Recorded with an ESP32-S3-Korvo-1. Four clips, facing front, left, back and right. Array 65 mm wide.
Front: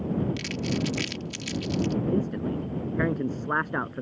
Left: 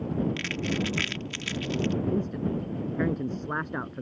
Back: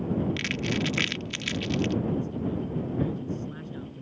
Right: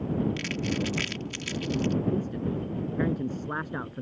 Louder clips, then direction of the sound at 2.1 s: Left 1 dB, front 2 dB; 5° left.